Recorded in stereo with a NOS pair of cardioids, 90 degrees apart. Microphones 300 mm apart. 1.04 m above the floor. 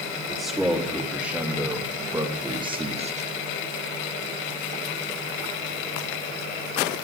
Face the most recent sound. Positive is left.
turn(degrees=-30)